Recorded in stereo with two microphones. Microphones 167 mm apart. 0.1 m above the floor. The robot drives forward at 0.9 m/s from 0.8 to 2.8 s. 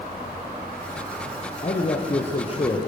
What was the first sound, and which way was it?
A man speaking, 45° left (ahead or behind).